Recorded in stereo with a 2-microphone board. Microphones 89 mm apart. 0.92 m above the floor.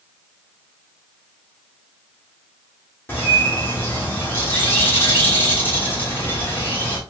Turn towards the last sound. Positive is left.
turn(degrees=25)  # may be behind; listen again after turning